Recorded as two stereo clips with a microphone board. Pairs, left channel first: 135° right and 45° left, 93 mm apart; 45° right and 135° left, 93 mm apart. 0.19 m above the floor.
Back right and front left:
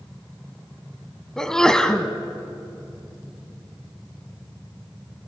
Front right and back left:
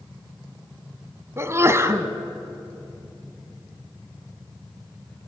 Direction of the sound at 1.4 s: 150° left.